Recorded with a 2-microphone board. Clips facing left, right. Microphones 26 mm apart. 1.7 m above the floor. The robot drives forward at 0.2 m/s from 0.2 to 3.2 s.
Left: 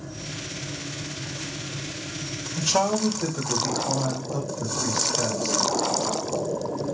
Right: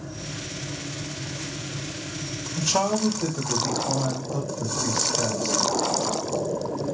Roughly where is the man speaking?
Centre.